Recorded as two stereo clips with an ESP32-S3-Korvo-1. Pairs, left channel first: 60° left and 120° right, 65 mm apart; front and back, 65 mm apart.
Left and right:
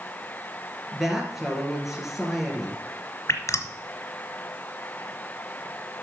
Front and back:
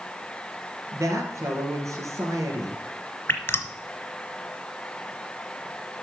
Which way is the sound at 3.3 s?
45° left.